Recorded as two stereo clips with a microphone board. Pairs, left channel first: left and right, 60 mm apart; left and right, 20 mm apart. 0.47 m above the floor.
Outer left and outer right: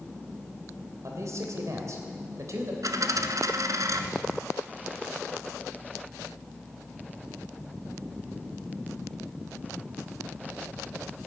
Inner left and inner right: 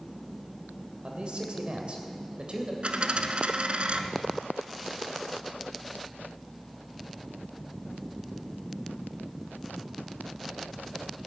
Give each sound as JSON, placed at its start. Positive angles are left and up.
{"t": 1.0, "sound": "a man speaking", "side_deg": -55, "distance_m": 2.5}
{"t": 2.8, "sound": "a dropped coin", "side_deg": -70, "distance_m": 0.9}